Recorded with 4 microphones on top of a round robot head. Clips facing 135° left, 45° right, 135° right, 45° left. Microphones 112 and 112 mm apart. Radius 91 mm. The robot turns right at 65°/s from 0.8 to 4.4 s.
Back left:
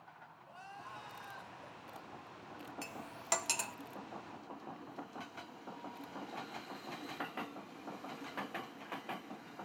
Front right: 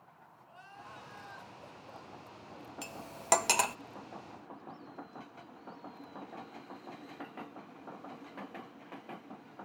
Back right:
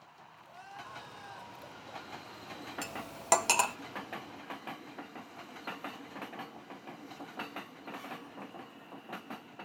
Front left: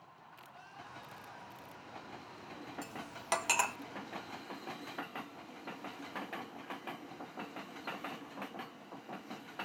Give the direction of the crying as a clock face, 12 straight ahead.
6 o'clock.